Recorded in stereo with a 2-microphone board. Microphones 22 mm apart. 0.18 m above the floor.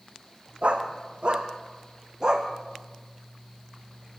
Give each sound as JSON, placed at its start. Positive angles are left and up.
{"t": 0.6, "sound": "a dog barking", "side_deg": -65, "distance_m": 3.5}